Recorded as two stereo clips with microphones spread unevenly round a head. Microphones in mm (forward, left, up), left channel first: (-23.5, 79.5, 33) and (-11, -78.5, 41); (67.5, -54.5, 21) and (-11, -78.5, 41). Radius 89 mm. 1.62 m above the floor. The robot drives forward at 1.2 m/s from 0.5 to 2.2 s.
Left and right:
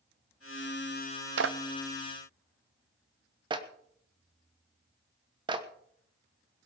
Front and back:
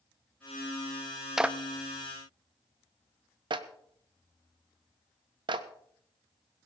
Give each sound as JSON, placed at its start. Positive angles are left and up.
{"t": 1.4, "sound": "a clap", "azimuth_deg": -85, "distance_m": 0.6}